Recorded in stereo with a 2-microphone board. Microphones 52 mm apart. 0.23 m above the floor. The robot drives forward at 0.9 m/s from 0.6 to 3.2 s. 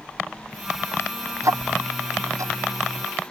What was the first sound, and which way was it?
Ticking, 70° right (ahead or behind).